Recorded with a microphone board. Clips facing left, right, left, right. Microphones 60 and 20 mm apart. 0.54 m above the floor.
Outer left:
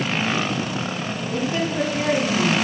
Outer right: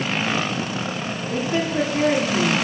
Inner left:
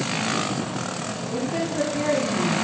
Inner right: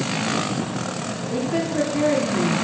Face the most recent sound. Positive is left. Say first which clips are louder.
# outer right 2 dB, inner right 3 dB
turn(degrees=-30)  # may be behind; listen again after turning